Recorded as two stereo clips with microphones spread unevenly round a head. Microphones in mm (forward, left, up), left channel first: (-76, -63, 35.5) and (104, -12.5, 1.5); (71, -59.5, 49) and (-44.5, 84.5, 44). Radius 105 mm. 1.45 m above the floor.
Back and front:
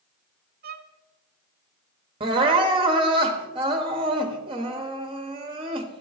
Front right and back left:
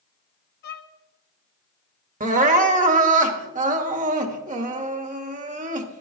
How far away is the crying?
About 1.0 m.